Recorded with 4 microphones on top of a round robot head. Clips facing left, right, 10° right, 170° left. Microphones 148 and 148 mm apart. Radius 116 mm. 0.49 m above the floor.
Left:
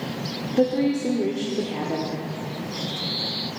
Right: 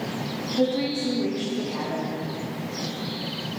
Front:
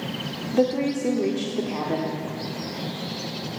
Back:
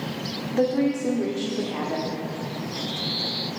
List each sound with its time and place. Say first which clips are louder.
0.5 s a woman speaking: left 3 dB, even; 55° left, 1.5 m